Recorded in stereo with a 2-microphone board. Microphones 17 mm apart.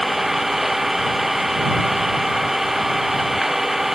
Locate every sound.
0.0 s an engine running: 15° right (ahead or behind)